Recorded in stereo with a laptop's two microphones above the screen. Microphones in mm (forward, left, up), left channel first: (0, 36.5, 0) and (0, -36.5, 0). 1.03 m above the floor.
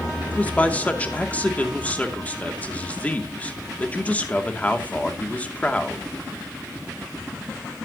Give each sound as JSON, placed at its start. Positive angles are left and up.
{"t": 0.3, "sound": "a man speaking", "side_deg": 20, "distance_m": 2.5}